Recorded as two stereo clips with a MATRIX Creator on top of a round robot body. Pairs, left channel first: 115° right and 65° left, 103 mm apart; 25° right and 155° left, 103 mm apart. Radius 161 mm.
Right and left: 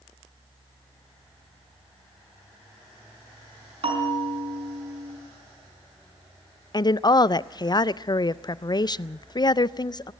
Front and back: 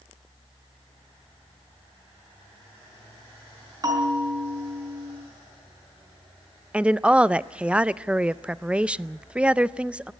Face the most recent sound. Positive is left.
turn(degrees=-125)